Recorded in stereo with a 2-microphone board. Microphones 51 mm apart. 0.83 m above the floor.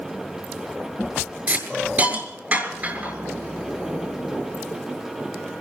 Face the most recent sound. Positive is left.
turn(degrees=-30)  # may be behind; listen again after turning